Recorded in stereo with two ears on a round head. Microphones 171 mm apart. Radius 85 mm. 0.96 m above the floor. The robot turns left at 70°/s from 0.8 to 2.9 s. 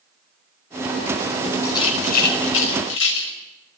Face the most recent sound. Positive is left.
turn(degrees=75)  # may be behind; listen again after turning